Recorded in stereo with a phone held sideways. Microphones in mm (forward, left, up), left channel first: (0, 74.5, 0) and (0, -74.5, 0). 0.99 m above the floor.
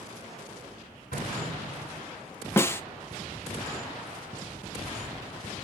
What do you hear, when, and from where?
1.1 s an explosion: 60° left (ahead or behind), 6.5 m
2.6 s a snare drum: 15° left (ahead or behind), 0.6 m